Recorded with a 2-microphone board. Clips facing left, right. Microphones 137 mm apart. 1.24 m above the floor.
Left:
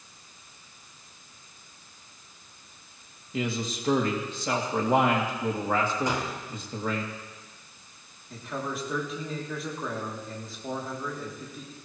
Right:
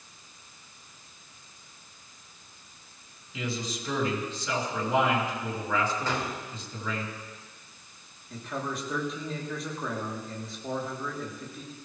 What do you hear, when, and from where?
3.3 s a man speaking: 50° left (ahead or behind), 2.5 m
6.1 s a gunshot: 15° left (ahead or behind), 2 m
8.3 s a man speaking: centre (ahead or behind), 3 m